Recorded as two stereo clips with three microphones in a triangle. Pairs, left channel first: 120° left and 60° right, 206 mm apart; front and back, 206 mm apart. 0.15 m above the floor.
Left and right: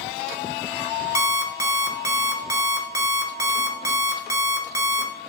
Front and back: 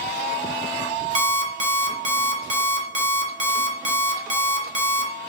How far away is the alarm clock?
About 0.8 m.